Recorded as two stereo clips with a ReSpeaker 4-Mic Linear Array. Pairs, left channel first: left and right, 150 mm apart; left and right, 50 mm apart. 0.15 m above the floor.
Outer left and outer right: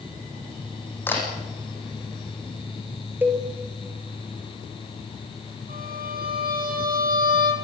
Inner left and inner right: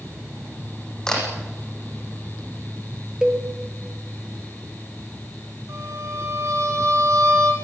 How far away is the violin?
About 5 m.